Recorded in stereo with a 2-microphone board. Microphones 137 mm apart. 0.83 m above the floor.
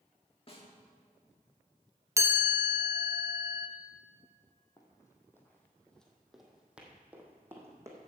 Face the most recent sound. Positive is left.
turn(degrees=-20)  # may be behind; listen again after turning